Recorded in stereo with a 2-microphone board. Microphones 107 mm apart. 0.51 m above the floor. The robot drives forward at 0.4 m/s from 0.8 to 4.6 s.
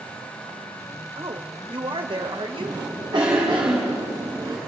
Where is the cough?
45° right (ahead or behind), 4 m; by 4.6 s 35° right (ahead or behind), 4.5 m.